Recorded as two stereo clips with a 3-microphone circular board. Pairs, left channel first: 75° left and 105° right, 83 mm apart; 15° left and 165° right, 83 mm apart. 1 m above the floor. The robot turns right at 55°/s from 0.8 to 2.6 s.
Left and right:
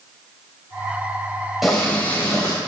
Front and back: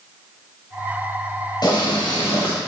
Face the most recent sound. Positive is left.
turn(degrees=35)